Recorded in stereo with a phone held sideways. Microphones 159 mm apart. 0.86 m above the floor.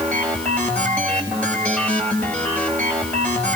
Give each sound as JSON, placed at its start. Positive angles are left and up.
{"t": 0.0, "sound": "a machine running", "side_deg": 10, "distance_m": 5.0}